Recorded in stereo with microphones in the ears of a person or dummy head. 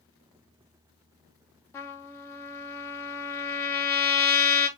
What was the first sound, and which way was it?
A trumpet, 15° left (ahead or behind).